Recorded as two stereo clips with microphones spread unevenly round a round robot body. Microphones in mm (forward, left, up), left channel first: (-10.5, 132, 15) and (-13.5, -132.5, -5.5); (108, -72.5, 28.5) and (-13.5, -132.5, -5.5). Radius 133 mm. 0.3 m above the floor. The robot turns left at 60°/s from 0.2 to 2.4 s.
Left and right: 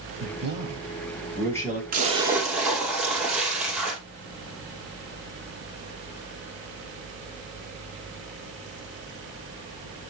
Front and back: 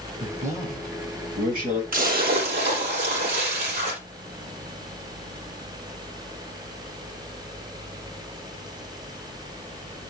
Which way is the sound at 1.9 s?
150° right.